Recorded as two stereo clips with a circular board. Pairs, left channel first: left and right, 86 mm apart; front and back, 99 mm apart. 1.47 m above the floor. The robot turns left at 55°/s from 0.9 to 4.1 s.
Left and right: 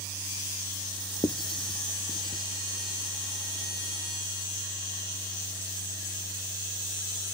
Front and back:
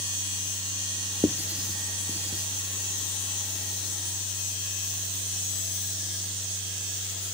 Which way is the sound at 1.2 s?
120° left.